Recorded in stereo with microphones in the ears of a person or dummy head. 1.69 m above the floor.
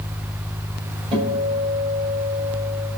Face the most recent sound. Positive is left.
turn(degrees=-30)  # may be behind; listen again after turning